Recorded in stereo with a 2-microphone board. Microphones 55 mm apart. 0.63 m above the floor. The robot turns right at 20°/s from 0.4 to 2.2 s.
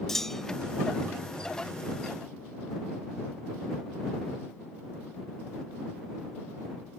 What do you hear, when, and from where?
0.1 s a clunk: 5° left (ahead or behind); by 0.7 s centre (ahead or behind)